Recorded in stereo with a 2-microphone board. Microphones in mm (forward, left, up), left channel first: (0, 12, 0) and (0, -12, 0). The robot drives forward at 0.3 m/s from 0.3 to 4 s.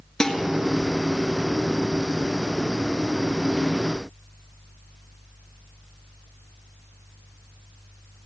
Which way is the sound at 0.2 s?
20° left (ahead or behind).